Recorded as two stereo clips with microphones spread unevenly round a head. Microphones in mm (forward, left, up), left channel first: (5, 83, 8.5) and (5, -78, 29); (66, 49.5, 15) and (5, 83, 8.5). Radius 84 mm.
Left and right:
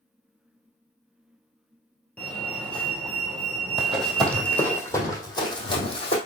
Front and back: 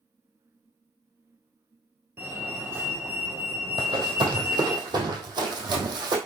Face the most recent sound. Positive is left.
turn(degrees=150)